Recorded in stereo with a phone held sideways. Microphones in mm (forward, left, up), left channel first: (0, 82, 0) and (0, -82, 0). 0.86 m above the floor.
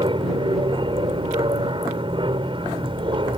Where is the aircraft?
30° right (ahead or behind).